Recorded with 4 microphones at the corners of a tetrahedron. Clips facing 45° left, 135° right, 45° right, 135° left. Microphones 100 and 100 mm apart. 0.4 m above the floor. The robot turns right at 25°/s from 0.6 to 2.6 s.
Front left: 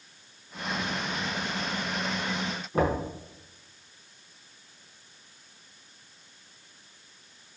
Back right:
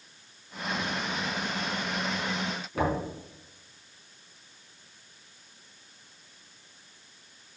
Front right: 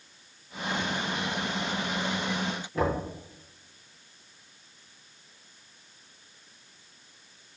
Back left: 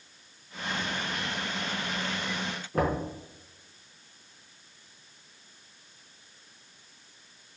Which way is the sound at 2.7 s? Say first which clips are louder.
Front left 3 dB, back left 1 dB; 100° left.